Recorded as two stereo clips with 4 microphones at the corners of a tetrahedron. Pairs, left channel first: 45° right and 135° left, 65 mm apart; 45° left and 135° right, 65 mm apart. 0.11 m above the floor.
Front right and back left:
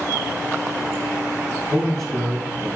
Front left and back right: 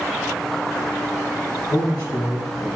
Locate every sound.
1.7 s a man speaking: 35° left, 5 m